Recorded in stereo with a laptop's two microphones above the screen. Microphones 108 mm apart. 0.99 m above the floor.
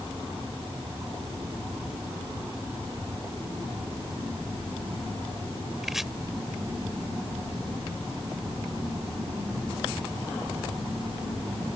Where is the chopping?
5° right (ahead or behind).